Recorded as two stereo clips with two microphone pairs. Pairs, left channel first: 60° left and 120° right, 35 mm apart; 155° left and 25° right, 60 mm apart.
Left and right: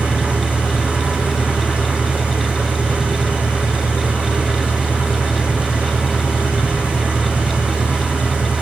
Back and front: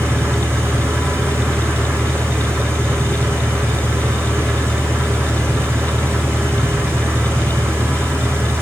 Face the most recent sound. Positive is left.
turn(degrees=-70)